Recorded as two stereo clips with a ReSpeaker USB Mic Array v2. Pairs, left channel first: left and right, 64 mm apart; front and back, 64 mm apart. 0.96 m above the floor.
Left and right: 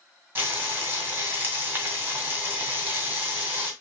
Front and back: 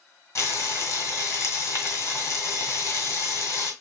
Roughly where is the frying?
Ahead right.